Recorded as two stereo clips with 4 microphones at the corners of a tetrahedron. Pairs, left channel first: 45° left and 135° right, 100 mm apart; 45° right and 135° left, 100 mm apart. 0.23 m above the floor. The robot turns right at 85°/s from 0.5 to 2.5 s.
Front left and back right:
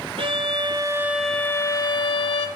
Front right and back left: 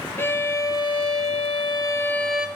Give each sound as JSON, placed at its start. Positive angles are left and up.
{"t": 0.2, "sound": "a violin", "azimuth_deg": -110, "distance_m": 0.7}